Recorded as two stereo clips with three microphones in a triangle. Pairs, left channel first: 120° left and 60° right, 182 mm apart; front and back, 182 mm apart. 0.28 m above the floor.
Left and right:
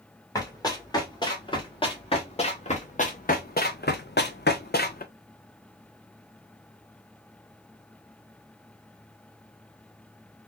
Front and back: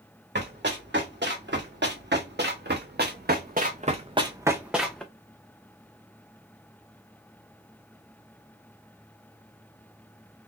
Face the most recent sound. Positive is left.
turn(degrees=85)